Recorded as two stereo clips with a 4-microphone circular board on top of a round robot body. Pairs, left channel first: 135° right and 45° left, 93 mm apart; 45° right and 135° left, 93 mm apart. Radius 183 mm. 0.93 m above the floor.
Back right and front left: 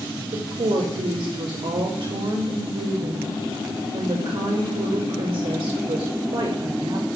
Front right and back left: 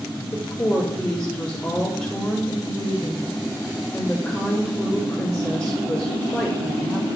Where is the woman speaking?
20° left, 3.5 m.